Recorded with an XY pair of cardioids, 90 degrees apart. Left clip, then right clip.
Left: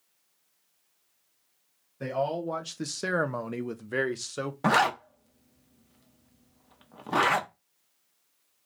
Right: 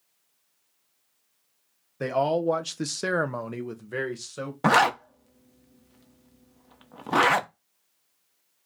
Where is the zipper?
30° right, 0.6 m.